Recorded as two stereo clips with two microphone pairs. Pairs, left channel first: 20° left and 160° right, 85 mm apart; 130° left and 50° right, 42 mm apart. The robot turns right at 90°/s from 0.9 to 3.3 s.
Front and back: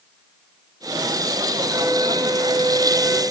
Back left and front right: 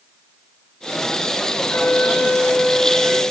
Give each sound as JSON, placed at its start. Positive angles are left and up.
{"t": 1.7, "sound": "a flute", "azimuth_deg": 155, "distance_m": 2.5}